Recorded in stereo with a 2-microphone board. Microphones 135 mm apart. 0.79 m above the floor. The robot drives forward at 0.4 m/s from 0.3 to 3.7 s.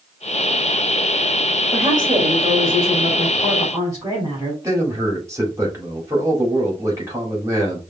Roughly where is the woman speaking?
Right.